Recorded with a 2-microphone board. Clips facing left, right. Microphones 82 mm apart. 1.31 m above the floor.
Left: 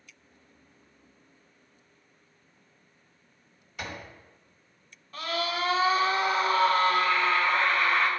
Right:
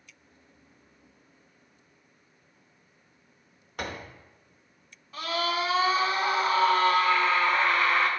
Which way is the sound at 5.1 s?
5° right (ahead or behind).